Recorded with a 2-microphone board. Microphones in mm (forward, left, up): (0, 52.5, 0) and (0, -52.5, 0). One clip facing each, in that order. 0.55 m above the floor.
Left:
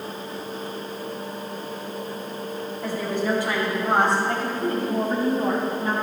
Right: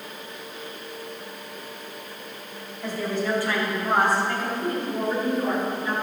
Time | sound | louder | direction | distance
2.8 | a woman speaking | left 1 dB | 10° left (ahead or behind) | 3 m